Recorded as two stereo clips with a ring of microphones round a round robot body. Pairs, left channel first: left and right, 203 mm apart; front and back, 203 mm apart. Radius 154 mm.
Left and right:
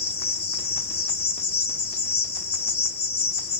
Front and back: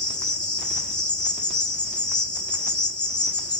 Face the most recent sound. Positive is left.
turn(degrees=55)